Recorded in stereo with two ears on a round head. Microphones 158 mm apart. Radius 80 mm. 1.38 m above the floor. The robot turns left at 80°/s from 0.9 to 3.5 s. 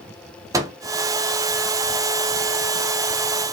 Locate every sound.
0.5 s a microwave: 20° right (ahead or behind), 0.6 m